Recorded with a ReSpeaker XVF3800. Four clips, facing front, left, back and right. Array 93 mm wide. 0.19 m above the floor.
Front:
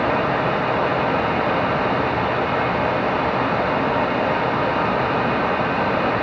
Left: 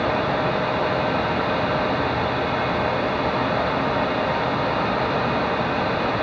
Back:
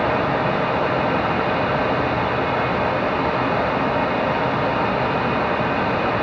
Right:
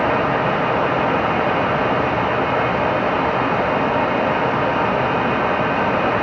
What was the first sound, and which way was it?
Only background noise.